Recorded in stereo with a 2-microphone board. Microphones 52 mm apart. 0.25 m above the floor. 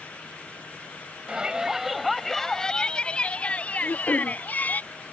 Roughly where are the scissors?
No scissors in this recording.